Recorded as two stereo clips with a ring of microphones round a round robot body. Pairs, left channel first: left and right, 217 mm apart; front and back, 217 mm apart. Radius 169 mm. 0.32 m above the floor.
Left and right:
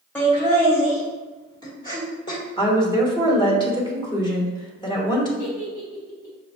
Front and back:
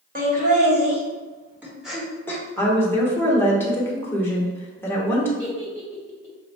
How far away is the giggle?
About 1.9 m.